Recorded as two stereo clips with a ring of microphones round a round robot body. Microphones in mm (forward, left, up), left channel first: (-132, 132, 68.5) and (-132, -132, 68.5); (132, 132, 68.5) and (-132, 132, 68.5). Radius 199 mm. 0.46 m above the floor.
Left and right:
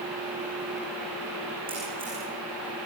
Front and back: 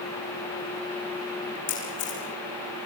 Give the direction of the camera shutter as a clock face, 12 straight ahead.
12 o'clock.